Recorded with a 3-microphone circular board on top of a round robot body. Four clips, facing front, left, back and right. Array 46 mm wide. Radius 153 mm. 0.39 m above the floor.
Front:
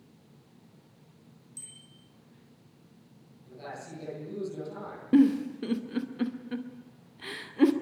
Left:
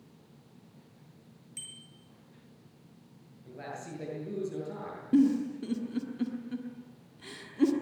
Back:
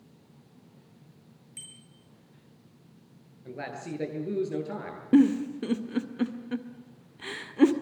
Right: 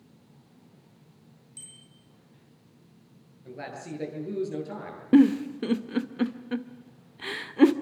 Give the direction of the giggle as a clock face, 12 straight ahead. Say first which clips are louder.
Right 6 dB, back 1 dB; 3 o'clock.